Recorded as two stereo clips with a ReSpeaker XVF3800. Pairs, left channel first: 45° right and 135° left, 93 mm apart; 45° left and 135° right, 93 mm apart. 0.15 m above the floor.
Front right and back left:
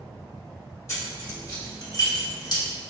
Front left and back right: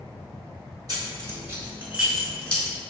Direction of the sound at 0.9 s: 100° right.